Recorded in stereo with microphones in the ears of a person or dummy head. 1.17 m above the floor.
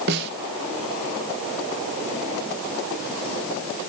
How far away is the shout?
No shout in this recording.